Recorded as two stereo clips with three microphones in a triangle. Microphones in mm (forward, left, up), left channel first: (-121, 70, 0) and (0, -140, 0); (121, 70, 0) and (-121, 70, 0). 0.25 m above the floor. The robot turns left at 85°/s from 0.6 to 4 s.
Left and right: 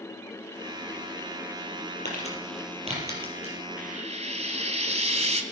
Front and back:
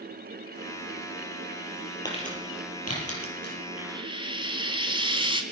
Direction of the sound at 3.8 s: 95° right.